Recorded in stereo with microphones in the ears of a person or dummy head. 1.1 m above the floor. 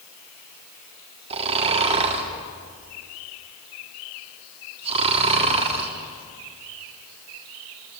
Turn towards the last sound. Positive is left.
turn(degrees=-35)  # may be behind; listen again after turning